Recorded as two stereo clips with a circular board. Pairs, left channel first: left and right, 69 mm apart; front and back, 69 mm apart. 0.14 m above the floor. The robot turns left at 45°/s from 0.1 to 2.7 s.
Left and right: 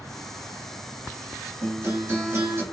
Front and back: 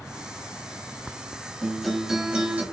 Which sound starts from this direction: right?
A guitar, at 1.6 s.